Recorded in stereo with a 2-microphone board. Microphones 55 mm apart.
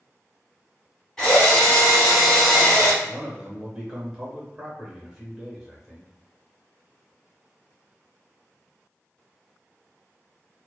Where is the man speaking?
5° right (ahead or behind), 1.0 m.